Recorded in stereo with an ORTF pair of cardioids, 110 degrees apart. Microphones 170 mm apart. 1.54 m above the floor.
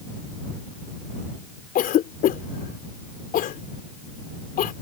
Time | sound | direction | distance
1.8 | a cough | 60° left | ?